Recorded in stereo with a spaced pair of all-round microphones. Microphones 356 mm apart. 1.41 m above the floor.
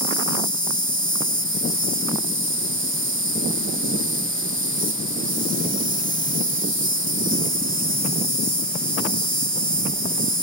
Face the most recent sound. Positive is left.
turn(degrees=-35)  # may be behind; listen again after turning